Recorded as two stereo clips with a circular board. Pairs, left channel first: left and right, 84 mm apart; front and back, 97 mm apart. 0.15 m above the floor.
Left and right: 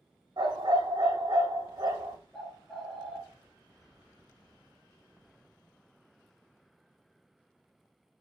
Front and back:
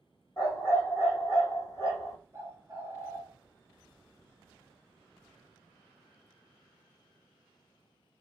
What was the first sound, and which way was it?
A dog barking, 60° right.